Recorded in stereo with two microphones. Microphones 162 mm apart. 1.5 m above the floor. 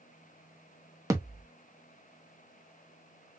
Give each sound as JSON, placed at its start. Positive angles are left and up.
{"t": 1.1, "sound": "a thud", "side_deg": -20, "distance_m": 0.9}